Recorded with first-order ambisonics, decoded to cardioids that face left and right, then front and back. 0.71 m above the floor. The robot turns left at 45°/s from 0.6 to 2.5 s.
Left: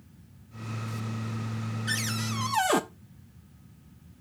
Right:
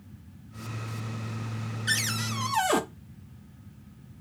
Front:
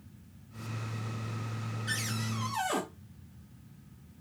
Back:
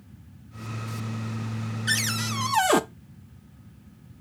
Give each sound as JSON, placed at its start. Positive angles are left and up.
{"t": 1.9, "sound": "a cupboard door", "azimuth_deg": -155, "distance_m": 0.7}